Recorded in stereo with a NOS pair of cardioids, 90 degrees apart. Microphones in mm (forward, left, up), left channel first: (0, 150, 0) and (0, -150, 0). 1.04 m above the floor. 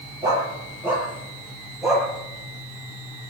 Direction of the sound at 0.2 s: 10° right.